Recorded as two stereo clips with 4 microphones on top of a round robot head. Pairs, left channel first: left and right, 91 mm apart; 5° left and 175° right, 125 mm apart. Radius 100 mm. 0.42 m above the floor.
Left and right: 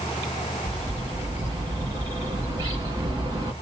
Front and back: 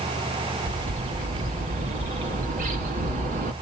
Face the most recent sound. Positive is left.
turn(degrees=-155)